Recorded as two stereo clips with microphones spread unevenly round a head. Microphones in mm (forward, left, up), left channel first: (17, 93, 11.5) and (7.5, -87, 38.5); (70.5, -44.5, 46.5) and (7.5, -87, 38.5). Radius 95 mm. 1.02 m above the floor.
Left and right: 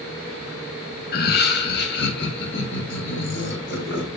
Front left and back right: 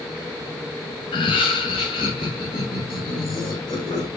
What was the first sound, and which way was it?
Laughter, 55° left.